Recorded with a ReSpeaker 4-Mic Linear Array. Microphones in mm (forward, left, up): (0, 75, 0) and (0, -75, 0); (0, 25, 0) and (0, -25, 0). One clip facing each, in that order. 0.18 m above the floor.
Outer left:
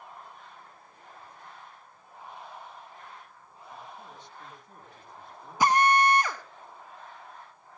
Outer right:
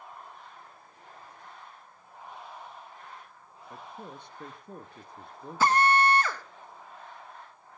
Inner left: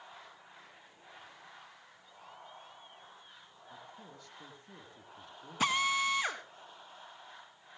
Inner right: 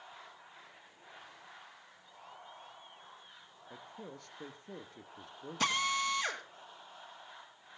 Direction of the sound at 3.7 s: 55° right (ahead or behind).